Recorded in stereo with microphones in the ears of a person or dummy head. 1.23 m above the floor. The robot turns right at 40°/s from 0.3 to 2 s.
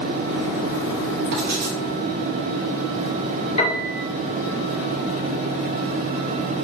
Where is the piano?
35° left (ahead or behind), 2.5 m.